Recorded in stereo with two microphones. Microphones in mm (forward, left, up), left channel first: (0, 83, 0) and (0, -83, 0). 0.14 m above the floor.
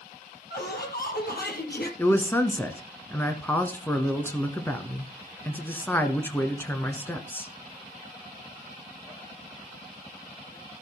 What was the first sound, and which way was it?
Laughter, 70° left (ahead or behind).